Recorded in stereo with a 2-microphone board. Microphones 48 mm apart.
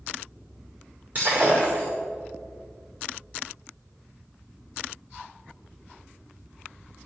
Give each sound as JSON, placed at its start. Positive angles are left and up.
{"t": 1.1, "sound": "breaking glass", "side_deg": -30, "distance_m": 5.5}